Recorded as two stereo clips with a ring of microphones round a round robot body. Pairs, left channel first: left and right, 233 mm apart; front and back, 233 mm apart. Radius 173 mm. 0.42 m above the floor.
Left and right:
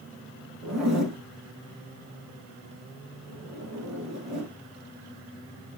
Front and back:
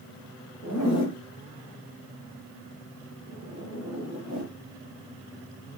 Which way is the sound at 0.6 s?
90° right.